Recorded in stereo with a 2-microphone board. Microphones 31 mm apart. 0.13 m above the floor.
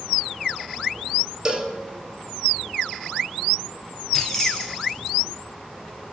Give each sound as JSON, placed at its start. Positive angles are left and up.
{"t": 1.4, "sound": "a cowbell", "side_deg": -25, "distance_m": 1.2}
{"t": 4.1, "sound": "keys jangling", "side_deg": 10, "distance_m": 1.7}